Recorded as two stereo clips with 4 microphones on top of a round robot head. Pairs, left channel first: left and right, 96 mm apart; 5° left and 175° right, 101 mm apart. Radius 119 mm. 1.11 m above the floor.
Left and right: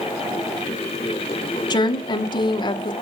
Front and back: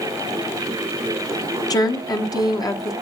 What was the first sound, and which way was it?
A woman speaking, 55° left.